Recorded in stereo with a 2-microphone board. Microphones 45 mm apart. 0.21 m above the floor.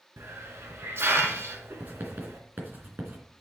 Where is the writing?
45° right (ahead or behind), 2.5 m.